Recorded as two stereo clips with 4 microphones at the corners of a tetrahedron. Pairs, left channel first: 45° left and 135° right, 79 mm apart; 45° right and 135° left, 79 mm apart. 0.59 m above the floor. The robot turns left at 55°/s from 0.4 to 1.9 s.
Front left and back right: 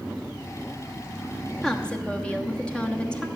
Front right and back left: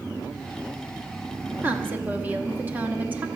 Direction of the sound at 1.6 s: 120° left.